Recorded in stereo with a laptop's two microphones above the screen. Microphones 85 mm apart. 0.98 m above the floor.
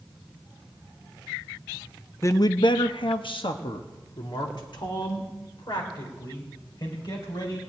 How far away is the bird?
I don't hear a bird.